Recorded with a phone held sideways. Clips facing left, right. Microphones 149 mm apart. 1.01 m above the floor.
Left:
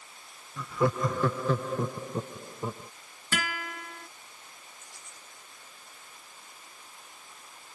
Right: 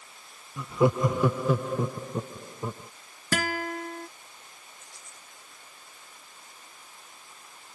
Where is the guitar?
40° right (ahead or behind).